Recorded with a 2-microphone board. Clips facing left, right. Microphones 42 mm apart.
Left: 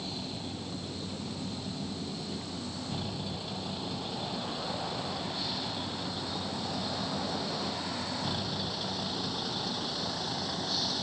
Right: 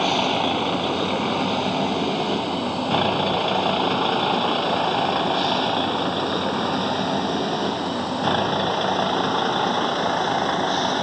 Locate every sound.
0.0 s a vehicle: 85° right; by 11.0 s 55° right (ahead or behind)